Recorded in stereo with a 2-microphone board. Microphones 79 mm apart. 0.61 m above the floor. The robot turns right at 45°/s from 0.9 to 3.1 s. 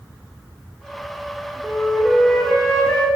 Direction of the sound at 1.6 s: 25° right.